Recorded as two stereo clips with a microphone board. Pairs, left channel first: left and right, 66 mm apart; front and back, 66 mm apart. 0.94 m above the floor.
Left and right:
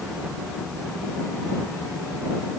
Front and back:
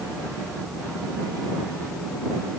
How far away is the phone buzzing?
I don't hear a phone buzzing.